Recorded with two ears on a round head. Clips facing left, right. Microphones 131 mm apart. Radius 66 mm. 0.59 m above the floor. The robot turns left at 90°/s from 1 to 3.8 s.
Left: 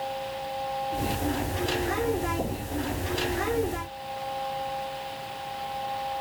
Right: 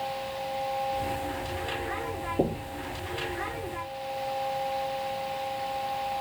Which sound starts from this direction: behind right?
Knocking, at 2.4 s.